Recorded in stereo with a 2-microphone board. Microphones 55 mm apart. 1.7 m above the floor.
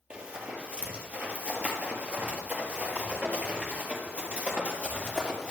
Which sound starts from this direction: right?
Running footsteps, at 0.1 s.